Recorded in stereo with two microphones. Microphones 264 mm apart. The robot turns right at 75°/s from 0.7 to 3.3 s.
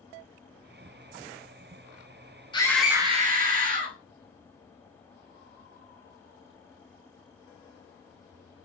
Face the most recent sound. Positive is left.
turn(degrees=-145)